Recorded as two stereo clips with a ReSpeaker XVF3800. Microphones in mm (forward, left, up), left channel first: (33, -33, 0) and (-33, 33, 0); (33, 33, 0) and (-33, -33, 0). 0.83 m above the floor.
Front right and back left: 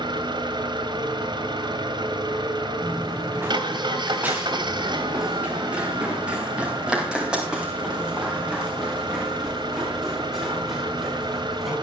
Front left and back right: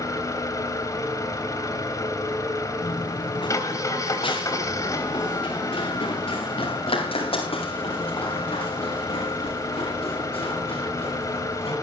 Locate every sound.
0.0 s an engine running: 100° left, 3 m
2.8 s running footsteps: 70° left, 2.5 m; by 11.7 s 50° left, 10 m